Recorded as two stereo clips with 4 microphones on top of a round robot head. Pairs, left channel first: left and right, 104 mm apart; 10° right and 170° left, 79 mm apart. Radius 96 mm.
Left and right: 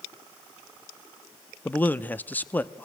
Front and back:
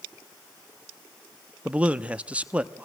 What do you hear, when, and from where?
1.6 s a man speaking: 125° left, 0.9 m